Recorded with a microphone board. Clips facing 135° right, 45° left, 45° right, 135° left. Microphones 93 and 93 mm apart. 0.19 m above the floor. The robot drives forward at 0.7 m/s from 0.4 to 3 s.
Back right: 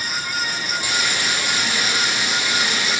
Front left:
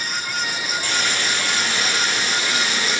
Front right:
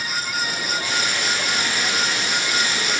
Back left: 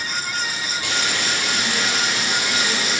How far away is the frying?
About 6.5 m.